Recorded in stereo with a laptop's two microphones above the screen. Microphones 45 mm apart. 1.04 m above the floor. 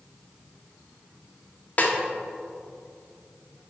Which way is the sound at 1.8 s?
40° left (ahead or behind).